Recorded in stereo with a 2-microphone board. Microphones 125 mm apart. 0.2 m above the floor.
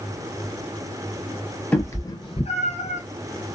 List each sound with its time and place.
1.7 s a cat meowing: 15° left (ahead or behind), 1.0 m; by 3.0 s 80° left, 1.1 m